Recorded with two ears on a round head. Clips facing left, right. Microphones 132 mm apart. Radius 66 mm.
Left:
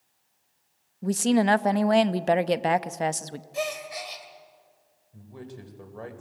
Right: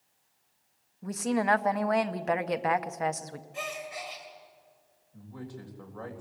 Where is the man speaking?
25° left (ahead or behind), 4 m.